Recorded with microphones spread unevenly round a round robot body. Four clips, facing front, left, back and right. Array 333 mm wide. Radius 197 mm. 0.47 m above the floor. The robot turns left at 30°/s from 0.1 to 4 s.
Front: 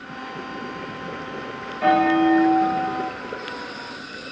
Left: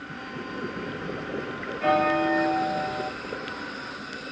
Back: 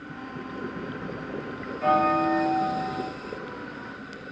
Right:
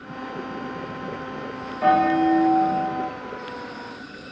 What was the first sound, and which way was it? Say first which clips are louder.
A bell: right 5 dB, front 5 dB; 35° right.